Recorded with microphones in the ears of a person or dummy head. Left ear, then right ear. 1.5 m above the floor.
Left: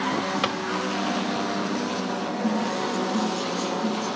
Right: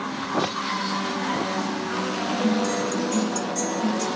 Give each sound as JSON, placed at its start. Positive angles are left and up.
{"t": 0.4, "sound": "a drawer", "side_deg": 65, "distance_m": 3.0}
{"t": 2.4, "sound": "a guitar", "side_deg": -50, "distance_m": 3.0}